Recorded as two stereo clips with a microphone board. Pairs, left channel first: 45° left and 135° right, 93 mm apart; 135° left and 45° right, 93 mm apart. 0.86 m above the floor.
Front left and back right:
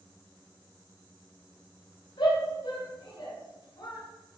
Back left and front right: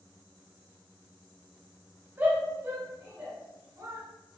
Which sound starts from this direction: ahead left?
A shout, at 2.2 s.